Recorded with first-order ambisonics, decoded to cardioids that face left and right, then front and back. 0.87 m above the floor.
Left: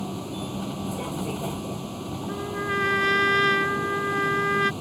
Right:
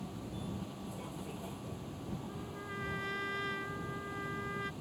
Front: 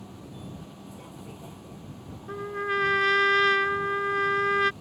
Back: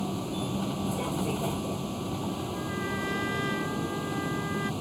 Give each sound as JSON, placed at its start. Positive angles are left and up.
{"t": 0.0, "sound": "a vehicle", "azimuth_deg": 135}
{"t": 2.3, "sound": "a trumpet", "azimuth_deg": 55}